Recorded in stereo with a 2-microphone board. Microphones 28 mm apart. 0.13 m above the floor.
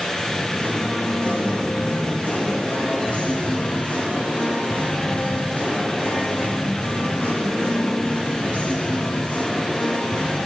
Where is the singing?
50° left (ahead or behind), 3.5 m.